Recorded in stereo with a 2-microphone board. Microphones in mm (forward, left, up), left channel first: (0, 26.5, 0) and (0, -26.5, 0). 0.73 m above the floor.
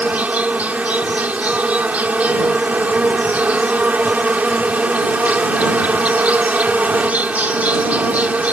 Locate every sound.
0.0 s an insect: 25° right (ahead or behind)